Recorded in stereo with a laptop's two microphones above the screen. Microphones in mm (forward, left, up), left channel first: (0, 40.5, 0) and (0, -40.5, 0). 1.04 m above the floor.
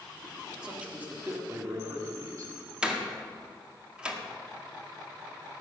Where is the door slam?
10° right (ahead or behind), 2.0 m.